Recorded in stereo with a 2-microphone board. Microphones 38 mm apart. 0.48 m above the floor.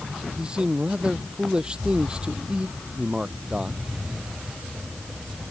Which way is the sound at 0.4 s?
25° right (ahead or behind).